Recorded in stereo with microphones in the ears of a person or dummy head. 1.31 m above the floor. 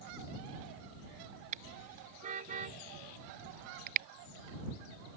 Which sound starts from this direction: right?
A car horn, at 1.5 s.